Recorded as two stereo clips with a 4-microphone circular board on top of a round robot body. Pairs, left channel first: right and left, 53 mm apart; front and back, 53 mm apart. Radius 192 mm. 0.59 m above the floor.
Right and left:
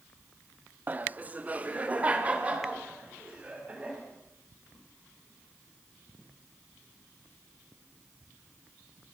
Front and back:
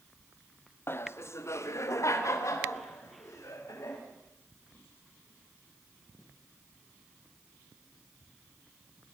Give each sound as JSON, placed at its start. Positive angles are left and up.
{"t": 0.9, "sound": "laughter", "azimuth_deg": 35, "distance_m": 1.2}